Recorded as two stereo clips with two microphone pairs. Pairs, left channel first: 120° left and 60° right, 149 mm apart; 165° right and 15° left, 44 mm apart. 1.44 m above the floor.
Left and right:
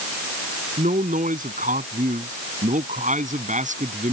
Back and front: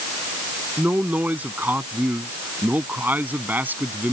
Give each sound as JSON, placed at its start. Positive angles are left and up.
{"t": 0.8, "sound": "a man speaking", "azimuth_deg": -35}